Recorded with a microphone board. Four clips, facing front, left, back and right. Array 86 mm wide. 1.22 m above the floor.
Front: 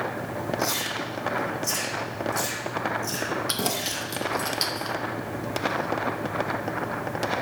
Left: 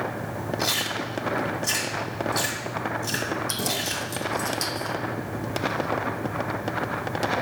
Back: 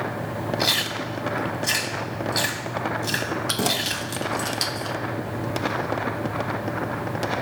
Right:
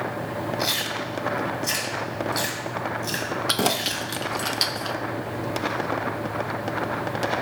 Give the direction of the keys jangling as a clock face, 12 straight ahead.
3 o'clock.